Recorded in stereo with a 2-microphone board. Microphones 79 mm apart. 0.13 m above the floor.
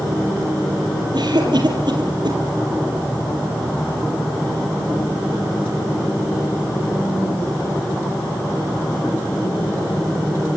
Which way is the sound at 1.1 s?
65° right (ahead or behind).